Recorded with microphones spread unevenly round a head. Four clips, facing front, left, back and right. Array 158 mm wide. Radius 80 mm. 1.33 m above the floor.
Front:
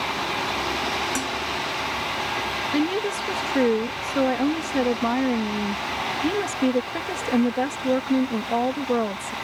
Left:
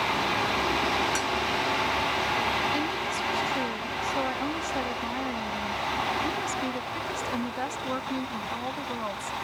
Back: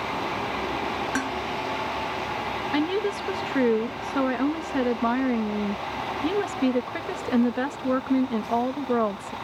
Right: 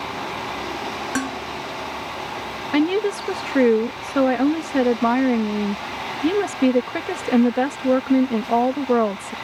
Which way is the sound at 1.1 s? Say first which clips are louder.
Right 4 dB, even; 100° right.